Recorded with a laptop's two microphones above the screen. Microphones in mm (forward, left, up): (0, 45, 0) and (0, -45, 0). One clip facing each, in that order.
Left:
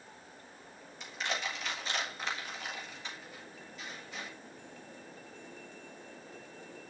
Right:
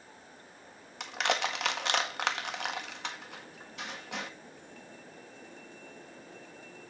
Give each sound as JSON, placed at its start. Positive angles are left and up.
{"t": 1.0, "sound": "crushing", "side_deg": -70, "distance_m": 1.6}